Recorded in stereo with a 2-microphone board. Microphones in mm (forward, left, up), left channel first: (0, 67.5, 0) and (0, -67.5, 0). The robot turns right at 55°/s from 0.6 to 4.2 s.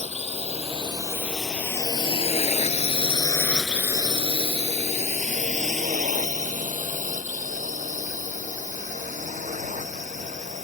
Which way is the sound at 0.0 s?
50° right (ahead or behind).